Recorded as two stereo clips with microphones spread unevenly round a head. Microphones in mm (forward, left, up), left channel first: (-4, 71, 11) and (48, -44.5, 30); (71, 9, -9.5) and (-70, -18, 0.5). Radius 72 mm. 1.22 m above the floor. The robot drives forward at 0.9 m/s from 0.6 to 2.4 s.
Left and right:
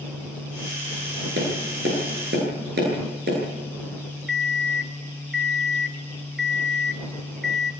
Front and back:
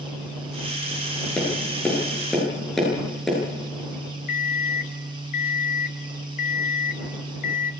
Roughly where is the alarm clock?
Ahead.